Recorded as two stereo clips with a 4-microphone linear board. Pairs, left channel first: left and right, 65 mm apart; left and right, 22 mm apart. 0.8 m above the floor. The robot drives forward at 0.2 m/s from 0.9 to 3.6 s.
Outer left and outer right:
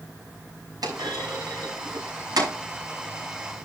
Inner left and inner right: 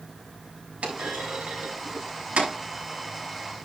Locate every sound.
0.8 s a clunk: 85° right, 6 m